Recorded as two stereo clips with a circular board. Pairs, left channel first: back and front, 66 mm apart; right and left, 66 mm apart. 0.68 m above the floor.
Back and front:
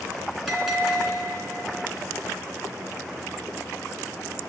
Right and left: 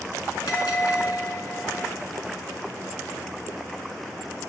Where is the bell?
90° right, 3 m.